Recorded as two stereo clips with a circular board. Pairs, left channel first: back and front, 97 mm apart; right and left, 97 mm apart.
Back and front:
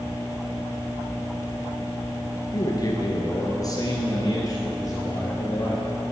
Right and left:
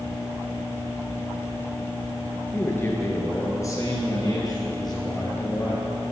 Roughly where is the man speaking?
Behind right.